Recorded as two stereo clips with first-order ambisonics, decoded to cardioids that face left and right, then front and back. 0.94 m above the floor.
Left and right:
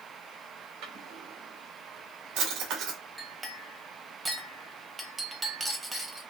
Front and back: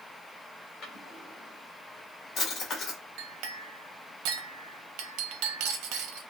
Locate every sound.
0.8 s a drawer: 60° right, 1.5 m
3.2 s a clink: 170° right, 0.7 m